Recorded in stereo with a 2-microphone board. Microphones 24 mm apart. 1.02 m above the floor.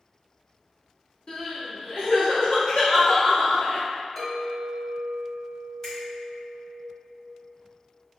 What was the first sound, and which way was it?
Crying, 45° left (ahead or behind).